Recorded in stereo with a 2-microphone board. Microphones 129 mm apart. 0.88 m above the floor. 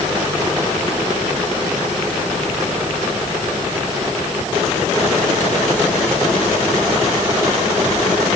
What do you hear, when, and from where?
Only background noise.